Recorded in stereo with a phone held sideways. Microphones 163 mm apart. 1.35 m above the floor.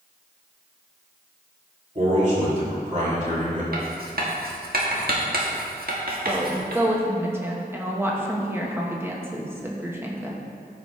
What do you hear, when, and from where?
1.9 s a man speaking: 50° right (ahead or behind), 2.5 m
3.7 s writing: 70° right (ahead or behind), 1.4 m
6.2 s a woman speaking: 15° right (ahead or behind), 1.2 m